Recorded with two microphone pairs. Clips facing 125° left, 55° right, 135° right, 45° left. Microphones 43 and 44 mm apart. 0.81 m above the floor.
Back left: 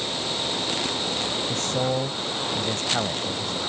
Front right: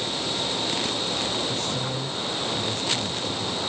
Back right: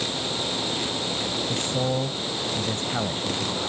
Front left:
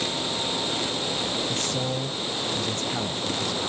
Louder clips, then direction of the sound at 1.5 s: Back left 3 dB, back right 2 dB; 160° left.